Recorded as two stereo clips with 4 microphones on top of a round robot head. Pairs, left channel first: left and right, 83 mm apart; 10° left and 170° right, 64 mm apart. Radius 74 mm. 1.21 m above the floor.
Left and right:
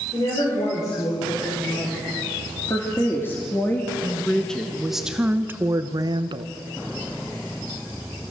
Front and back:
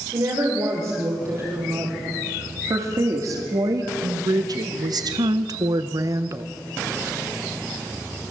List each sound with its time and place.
0.1 s a woman speaking: 145° left, 5.5 m; by 6.5 s 110° right, 1.2 m